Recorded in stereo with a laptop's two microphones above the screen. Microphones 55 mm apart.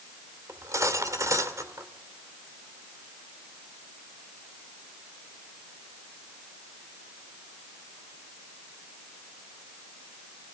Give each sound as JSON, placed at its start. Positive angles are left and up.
{"t": 0.5, "sound": "cutlery clinking", "side_deg": -70, "distance_m": 1.9}